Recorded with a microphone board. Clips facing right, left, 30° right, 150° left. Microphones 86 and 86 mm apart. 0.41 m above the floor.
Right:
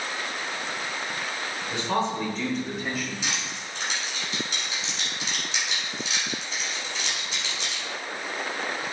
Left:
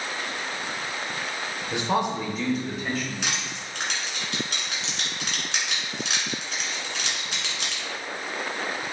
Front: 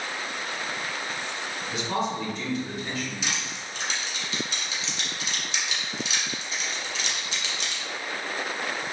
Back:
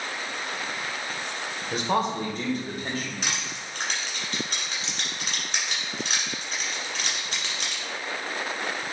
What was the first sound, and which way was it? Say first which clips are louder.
A man speaking: left 2 dB, back 3 dB; 150° left.